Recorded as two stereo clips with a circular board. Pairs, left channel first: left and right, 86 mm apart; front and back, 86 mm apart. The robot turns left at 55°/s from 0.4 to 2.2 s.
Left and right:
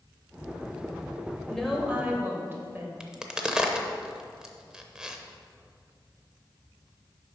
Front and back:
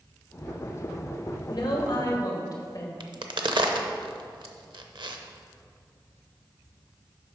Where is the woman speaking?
10° left, 1.6 m; by 2.9 s 30° right, 1.6 m.